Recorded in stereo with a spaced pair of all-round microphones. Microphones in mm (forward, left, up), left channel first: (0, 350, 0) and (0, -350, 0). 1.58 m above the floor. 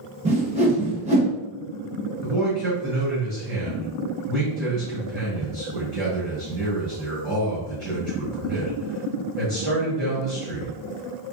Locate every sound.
0.2 s a whoosh: 10° right (ahead or behind), 0.9 m
2.2 s a man speaking: 35° right (ahead or behind), 1.2 m